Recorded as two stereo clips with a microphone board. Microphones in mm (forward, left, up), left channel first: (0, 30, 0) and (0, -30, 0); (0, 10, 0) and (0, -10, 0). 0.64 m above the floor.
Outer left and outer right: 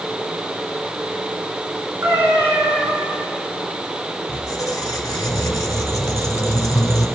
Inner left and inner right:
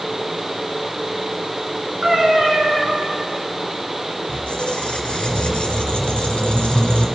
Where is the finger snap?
No finger snap in this recording.